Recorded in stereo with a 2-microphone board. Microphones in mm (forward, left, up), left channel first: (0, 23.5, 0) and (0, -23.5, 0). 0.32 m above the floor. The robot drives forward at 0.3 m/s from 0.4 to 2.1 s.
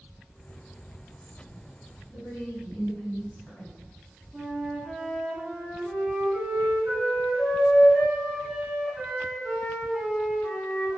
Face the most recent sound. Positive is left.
turn(degrees=5)  # may be behind; listen again after turning